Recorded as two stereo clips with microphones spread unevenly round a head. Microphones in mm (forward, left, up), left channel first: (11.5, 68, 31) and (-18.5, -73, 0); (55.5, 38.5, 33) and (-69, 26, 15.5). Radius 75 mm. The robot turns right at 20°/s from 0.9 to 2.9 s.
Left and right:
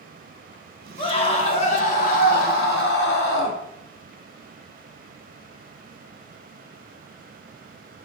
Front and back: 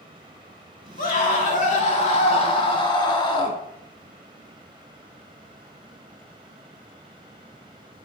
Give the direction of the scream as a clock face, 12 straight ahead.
11 o'clock.